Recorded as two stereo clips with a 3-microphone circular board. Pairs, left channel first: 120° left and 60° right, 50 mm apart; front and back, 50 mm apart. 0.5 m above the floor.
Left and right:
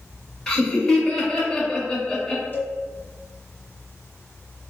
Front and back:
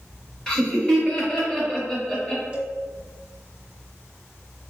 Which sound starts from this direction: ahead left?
Laughter, at 0.5 s.